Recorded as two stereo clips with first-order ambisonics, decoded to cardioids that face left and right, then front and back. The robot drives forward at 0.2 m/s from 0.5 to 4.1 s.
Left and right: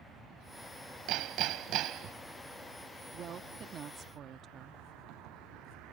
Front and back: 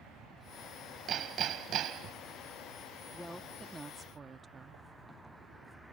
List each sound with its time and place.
1.1 s hammering: 120° right; by 2.2 s 135° right
3.1 s a woman speaking: 85° right; by 4.8 s 120° right